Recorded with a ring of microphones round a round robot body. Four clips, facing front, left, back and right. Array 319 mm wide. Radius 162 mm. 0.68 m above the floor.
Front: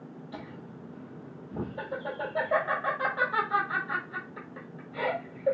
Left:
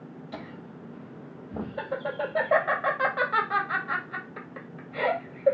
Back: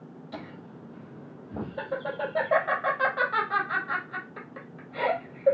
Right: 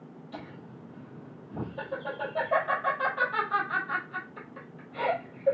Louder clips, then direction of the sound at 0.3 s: Left 2 dB, back 3 dB; 125° left.